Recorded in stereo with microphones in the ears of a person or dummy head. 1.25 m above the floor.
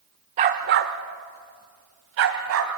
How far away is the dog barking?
About 0.9 m.